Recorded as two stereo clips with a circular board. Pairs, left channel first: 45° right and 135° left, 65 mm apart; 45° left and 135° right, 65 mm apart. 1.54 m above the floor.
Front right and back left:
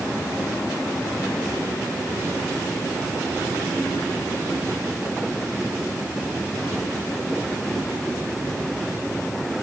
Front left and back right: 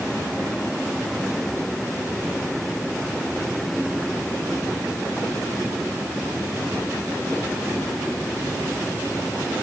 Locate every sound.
Only background noise.